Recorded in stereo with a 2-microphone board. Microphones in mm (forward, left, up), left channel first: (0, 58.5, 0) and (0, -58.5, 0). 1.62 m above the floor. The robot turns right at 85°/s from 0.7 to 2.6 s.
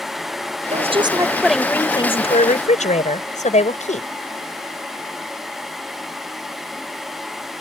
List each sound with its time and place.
0.7 s a woman speaking: 70° right; by 4.1 s 90° left